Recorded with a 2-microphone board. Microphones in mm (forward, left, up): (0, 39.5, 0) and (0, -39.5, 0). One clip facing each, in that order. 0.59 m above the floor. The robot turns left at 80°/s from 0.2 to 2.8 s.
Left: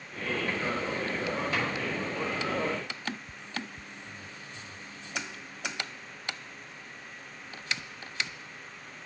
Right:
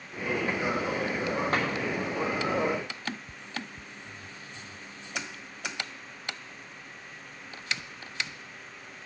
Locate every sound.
1.5 s a drawer: 45° right (ahead or behind), 4 m; by 1.7 s 55° right (ahead or behind), 4 m